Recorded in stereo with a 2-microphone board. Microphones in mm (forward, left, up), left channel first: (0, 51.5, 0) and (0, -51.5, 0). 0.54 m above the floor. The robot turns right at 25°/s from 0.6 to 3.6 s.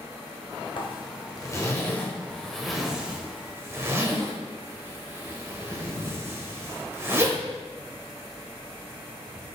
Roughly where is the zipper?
Left.